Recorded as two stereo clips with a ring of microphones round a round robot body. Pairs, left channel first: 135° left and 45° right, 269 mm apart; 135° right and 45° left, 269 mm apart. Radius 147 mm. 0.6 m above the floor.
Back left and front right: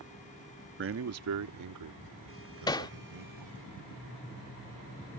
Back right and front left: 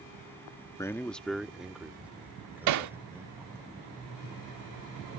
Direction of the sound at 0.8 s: 60° right.